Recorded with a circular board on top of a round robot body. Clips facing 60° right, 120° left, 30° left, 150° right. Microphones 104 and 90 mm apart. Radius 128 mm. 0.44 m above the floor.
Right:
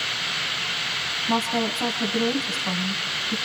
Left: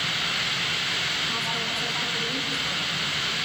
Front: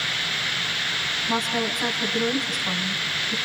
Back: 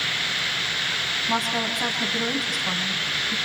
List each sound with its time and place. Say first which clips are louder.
1.3 s a woman speaking: right 13 dB, even; 70° right, 4.5 m